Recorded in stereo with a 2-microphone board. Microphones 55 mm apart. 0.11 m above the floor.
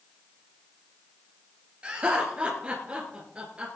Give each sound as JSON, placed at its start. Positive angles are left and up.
{"t": 1.8, "sound": "laughter", "side_deg": -20, "distance_m": 2.5}